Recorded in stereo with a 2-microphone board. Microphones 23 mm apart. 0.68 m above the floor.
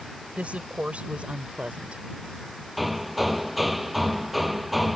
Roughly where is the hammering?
Centre.